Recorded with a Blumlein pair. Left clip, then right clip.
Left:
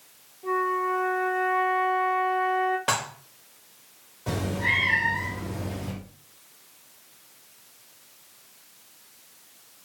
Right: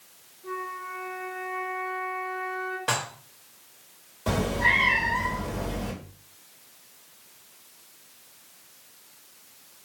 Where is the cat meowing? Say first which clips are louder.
Right 3 dB; 25° right, 1.6 m.